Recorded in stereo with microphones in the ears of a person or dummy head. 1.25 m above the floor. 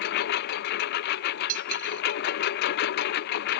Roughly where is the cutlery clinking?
Right.